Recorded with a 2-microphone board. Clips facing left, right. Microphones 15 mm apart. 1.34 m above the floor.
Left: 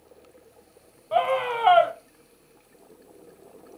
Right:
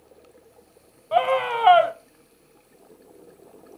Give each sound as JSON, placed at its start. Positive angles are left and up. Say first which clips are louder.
{"t": 1.1, "sound": "a scream", "louder": "right 2 dB", "side_deg": -5, "distance_m": 1.0}